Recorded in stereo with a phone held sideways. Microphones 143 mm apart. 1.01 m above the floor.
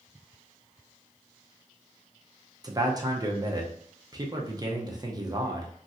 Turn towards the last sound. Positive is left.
turn(degrees=-30)  # may be behind; listen again after turning